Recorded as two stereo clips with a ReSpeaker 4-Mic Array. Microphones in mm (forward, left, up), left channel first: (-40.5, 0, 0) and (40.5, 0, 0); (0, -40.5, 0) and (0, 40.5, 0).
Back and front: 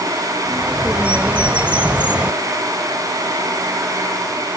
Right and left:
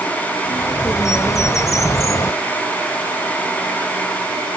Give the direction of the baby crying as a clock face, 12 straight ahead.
I don't hear a baby crying.